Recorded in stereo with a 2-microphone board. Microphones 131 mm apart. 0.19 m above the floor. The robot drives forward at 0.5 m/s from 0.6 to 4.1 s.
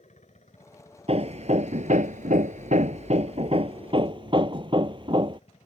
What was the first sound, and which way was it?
A helicopter, 60° left (ahead or behind).